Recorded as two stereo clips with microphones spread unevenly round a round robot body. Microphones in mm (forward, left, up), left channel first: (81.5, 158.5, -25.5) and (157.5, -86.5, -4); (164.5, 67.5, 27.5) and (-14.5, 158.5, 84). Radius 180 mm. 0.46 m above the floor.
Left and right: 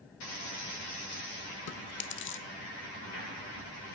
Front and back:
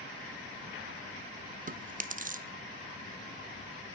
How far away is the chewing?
About 0.8 m.